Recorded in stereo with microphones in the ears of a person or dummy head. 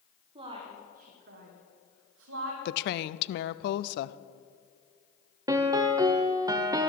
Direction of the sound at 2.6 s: 65° left (ahead or behind).